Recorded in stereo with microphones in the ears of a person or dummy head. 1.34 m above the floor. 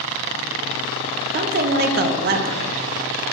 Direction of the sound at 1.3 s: 45° right (ahead or behind).